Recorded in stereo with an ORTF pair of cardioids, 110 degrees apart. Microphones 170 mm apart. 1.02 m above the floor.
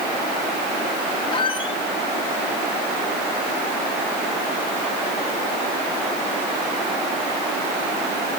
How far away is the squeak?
About 2 m.